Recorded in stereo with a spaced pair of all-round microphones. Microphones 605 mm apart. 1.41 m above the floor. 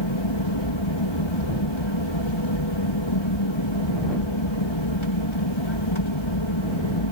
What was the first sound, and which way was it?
An aircraft, 50° left (ahead or behind).